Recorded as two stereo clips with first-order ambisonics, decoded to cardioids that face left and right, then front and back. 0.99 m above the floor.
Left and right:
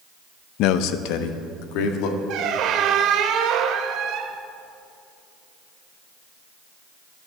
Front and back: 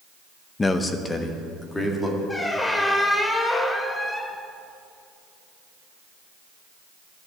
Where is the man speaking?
75° left, 0.6 m; by 2.2 s 80° left, 2 m.